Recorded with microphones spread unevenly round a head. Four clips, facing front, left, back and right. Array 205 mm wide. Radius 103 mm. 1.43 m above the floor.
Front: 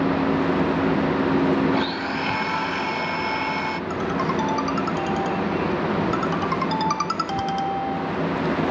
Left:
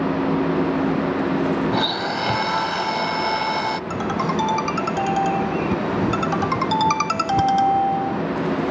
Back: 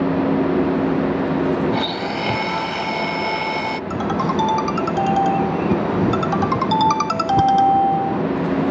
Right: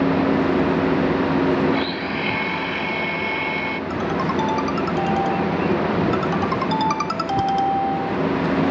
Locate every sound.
1.7 s a blender: 145° left
3.9 s a ringtone: 175° left